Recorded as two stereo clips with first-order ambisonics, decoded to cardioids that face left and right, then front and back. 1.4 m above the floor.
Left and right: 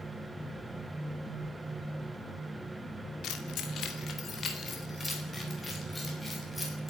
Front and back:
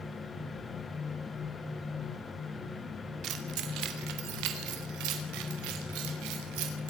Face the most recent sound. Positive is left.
turn(degrees=170)